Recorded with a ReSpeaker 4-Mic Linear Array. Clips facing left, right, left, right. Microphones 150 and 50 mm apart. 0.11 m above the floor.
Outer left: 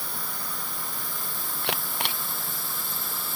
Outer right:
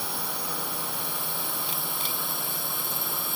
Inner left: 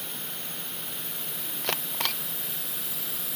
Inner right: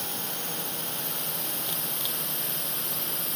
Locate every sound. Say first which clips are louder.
0.0 s a drone: outer right 4 dB, inner right 4 dB; 70° right (ahead or behind); by 3.4 s 60° right (ahead or behind)
1.6 s a camera shutter: outer left 3 dB, inner left 4 dB; 75° left (ahead or behind)